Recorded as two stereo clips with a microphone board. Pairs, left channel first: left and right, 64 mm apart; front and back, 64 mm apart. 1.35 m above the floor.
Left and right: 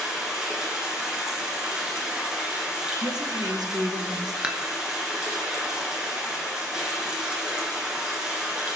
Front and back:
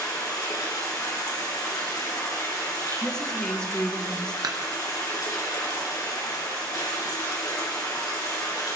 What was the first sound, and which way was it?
Running water, 10° right.